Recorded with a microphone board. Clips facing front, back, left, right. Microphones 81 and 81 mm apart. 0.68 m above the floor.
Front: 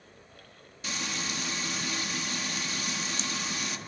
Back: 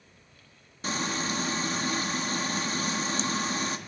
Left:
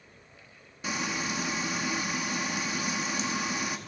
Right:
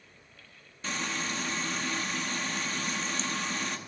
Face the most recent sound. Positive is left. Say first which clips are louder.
# back 6 dB, left 2 dB
turn(degrees=160)